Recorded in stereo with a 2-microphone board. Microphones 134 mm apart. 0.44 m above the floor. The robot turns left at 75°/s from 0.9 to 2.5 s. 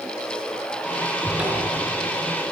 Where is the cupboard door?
5° left, 4.5 m; by 1.8 s 40° right, 4.5 m.